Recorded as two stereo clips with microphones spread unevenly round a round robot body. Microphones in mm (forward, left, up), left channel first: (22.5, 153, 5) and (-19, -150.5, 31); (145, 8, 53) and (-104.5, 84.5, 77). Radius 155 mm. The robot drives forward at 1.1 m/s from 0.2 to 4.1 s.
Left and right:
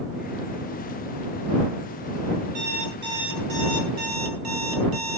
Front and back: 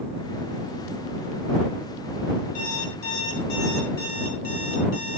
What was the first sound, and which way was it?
An alarm clock, 55° right.